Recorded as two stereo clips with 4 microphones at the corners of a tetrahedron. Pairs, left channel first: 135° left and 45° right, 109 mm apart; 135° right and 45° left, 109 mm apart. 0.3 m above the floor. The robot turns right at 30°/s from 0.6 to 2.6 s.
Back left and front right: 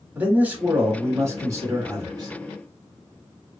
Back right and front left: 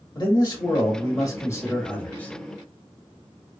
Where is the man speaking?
115° right, 1.2 m; by 2.3 s 60° right, 1.2 m.